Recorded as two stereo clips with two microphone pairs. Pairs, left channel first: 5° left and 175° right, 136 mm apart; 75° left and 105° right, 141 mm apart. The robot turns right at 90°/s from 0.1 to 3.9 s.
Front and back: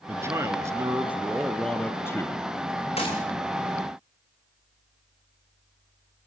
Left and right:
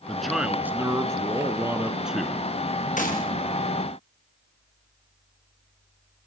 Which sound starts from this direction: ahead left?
A gunshot, at 3.0 s.